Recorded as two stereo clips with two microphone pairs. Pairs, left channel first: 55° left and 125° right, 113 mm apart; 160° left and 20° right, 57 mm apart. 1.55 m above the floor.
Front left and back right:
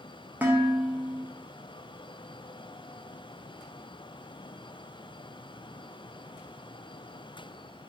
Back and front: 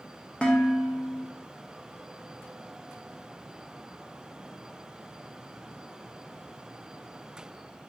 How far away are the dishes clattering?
About 0.8 m.